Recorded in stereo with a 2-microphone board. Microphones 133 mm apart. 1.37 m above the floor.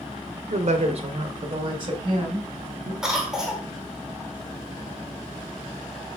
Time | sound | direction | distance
0.5 | a woman speaking | 60° right (ahead or behind) | 0.6 m
3.0 | a cough | 5° right (ahead or behind) | 1.0 m